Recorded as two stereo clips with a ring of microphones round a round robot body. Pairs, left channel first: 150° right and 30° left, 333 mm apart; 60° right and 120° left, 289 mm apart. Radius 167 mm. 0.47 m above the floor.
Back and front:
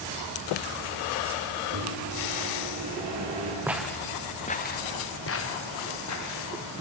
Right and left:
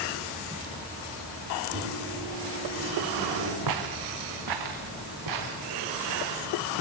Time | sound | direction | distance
1.7 | a microwave | 70° left | 8.5 m
3.7 | footsteps | 115° left | 1.6 m